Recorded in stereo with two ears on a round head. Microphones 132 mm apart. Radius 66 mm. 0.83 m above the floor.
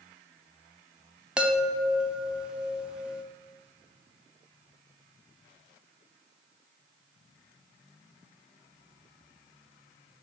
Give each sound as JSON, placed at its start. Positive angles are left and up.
{"t": 1.4, "sound": "a chime", "side_deg": -5, "distance_m": 0.7}